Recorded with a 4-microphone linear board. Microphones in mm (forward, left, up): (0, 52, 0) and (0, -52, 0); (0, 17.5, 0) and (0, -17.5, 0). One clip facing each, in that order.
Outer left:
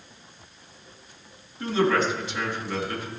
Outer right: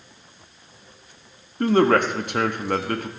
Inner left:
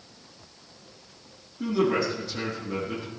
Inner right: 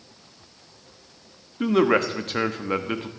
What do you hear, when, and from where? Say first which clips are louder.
1.6 s a man speaking: outer right 5 dB, inner right 5 dB; 55° right (ahead or behind), 1.3 m